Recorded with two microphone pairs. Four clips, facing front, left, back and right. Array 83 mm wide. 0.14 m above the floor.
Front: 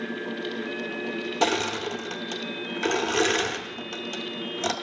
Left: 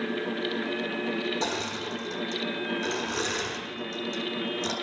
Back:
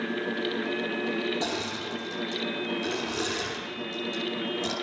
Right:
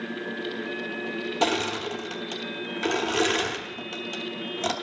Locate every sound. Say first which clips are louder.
1.4 s crushing: right 5 dB, front 7 dB; 50° right, 0.9 m